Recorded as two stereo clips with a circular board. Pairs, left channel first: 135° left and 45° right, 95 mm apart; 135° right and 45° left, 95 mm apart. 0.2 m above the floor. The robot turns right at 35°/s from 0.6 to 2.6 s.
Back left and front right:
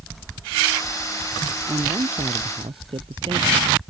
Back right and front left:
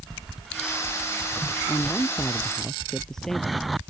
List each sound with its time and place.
1.7 s a man speaking: 85° right; by 3.9 s 50° right